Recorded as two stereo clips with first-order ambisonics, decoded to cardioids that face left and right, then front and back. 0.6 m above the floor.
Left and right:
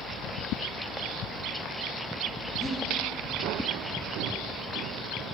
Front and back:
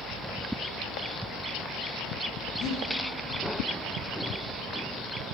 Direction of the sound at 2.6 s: 15° right.